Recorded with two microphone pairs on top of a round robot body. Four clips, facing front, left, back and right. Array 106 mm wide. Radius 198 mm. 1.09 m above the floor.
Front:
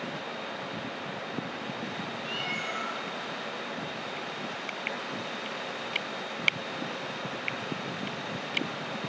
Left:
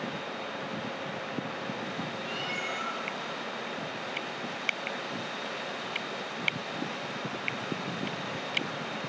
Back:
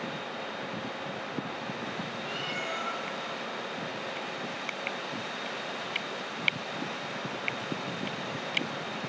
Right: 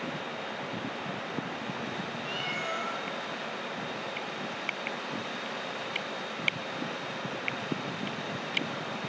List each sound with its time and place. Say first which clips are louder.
2.2 s a cat meowing: even, even; 75° right, 6 m